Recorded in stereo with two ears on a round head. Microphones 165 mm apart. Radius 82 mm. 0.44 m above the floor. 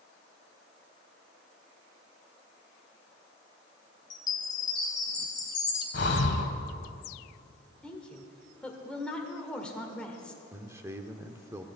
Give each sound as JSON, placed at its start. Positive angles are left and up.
{"t": 4.1, "sound": "a chime", "side_deg": 25, "distance_m": 2.5}
{"t": 5.9, "sound": "breathing", "side_deg": 65, "distance_m": 1.2}
{"t": 7.8, "sound": "a woman speaking", "side_deg": 5, "distance_m": 1.5}
{"t": 10.5, "sound": "a man speaking", "side_deg": -15, "distance_m": 0.8}